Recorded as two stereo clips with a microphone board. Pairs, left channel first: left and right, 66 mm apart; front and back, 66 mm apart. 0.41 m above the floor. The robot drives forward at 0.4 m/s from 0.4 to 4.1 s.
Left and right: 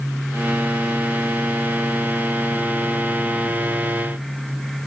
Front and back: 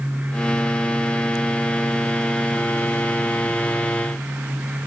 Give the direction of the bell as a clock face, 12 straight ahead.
No bell in this recording.